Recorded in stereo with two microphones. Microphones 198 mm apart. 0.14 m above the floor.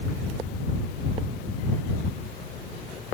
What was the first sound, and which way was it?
Only background noise.